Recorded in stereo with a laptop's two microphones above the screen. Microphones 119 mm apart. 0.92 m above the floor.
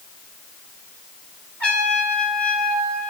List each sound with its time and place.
1.6 s a trumpet: 10° left (ahead or behind), 5.5 m